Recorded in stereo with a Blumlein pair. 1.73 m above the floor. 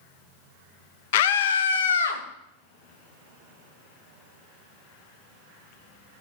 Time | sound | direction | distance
1.1 | a scream | 55° left | 0.8 m